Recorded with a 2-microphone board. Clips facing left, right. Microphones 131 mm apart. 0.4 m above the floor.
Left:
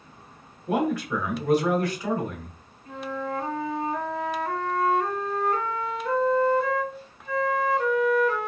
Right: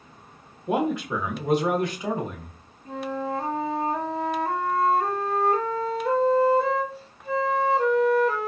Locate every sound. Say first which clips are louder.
0.7 s a man speaking: even; 20° right (ahead or behind), 0.8 m
2.9 s a flute: right 2 dB; 30° right (ahead or behind), 0.6 m